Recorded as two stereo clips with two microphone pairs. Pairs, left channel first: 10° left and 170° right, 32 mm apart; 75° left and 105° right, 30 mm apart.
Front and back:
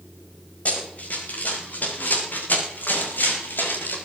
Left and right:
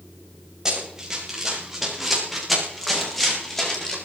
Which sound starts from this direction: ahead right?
Running footsteps, at 0.7 s.